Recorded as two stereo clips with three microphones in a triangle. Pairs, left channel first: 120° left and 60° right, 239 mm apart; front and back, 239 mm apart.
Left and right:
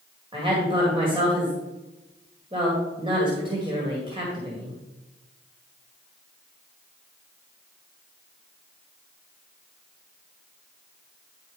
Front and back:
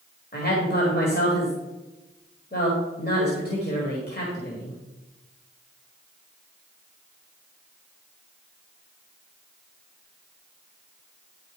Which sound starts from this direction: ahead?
A woman speaking, at 0.3 s.